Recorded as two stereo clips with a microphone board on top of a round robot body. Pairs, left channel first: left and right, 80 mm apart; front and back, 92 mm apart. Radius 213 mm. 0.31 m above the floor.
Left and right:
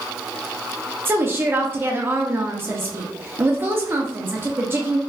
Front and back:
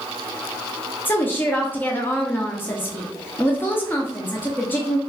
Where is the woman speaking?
55° right, 1.0 m.